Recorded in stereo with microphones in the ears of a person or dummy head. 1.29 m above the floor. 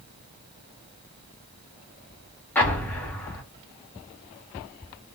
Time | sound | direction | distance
2.5 | an explosion | 5° left (ahead or behind) | 0.7 m